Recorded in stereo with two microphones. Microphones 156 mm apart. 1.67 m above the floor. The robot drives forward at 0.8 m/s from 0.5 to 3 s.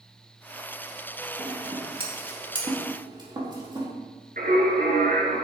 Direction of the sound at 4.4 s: 65° right (ahead or behind).